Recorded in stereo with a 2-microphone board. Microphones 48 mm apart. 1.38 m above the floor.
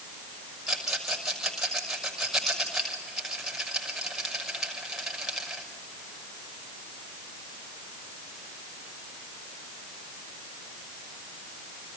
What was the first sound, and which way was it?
A rattle, 10° right (ahead or behind).